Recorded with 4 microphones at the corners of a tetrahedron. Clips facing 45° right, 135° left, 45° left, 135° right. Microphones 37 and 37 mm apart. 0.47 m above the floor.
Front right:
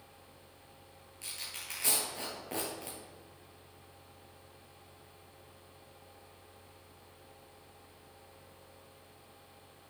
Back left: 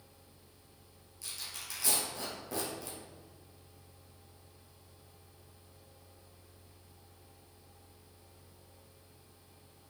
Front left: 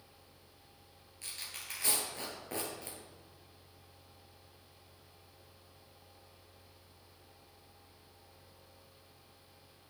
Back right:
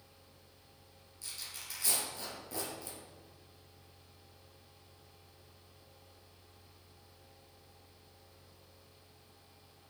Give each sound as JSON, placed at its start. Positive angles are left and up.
{"t": 1.2, "sound": "tearing paper", "azimuth_deg": 0, "distance_m": 2.5}